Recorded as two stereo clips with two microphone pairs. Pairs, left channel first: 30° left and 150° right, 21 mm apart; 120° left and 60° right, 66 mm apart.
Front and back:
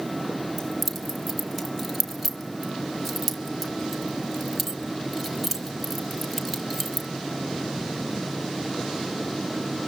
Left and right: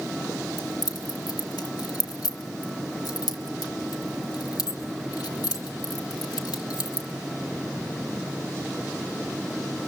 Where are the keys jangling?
130° left, 1.6 m.